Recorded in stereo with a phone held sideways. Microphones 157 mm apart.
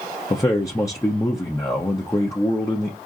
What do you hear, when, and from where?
0.3 s a man speaking: 20° left (ahead or behind), 0.6 m